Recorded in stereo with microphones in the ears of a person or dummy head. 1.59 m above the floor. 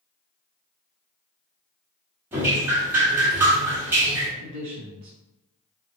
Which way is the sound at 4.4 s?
60° right (ahead or behind).